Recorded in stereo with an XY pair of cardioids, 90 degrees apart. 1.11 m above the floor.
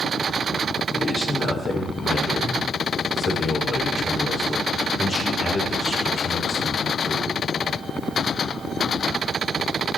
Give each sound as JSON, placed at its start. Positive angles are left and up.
{"t": 0.9, "sound": "a man speaking", "azimuth_deg": 50, "distance_m": 5.0}